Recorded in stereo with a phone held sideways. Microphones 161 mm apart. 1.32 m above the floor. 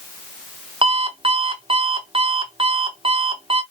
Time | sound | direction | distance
0.8 | an alarm clock | 35° right (ahead or behind) | 0.7 m